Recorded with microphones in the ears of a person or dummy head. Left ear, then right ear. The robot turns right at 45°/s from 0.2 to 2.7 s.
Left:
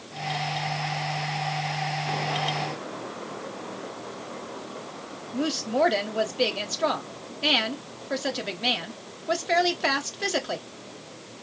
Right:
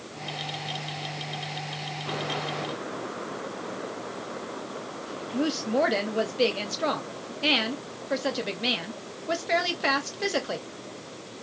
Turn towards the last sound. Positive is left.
turn(degrees=0)  # may be behind; listen again after turning